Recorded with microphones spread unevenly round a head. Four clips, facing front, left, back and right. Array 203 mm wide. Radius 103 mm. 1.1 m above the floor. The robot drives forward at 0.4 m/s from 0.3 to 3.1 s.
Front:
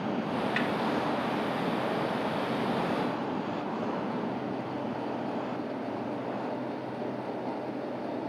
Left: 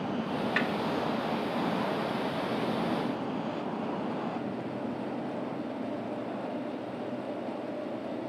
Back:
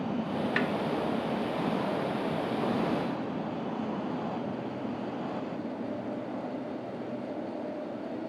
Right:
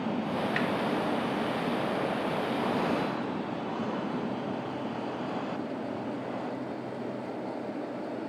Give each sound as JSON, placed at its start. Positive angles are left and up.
{"t": 0.6, "sound": "a snare drum", "azimuth_deg": 175, "distance_m": 1.1}